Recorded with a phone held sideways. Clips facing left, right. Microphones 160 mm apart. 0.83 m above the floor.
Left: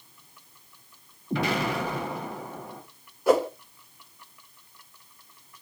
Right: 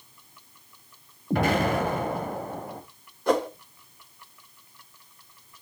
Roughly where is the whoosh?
Centre.